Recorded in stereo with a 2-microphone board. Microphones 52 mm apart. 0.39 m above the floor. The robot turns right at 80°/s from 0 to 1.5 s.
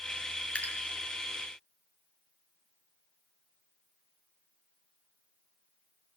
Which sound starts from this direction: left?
Dripping, at 0.6 s.